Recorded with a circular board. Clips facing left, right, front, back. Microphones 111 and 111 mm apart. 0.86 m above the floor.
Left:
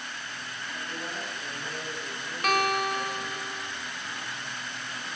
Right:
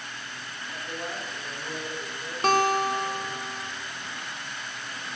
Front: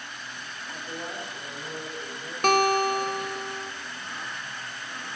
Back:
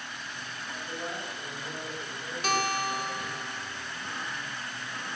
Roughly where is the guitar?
Ahead right.